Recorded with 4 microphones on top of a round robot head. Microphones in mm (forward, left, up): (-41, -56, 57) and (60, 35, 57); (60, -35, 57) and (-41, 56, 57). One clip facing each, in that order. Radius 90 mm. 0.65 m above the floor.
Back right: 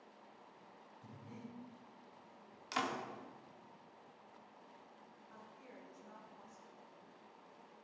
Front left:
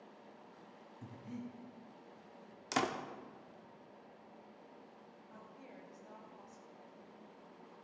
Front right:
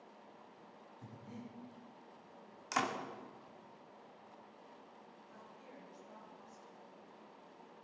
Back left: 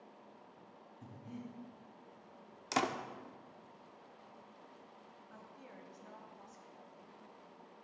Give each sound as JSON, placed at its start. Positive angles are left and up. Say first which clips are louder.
{"t": 1.0, "sound": "breathing", "louder": "front left 7 dB, back left 3 dB", "azimuth_deg": 60, "distance_m": 5.5}
{"t": 2.7, "sound": "a door slam", "louder": "front left 4 dB, back left 2 dB", "azimuth_deg": 80, "distance_m": 1.3}
{"t": 5.3, "sound": "a woman speaking", "louder": "front left 2 dB, back left 2 dB", "azimuth_deg": 105, "distance_m": 3.5}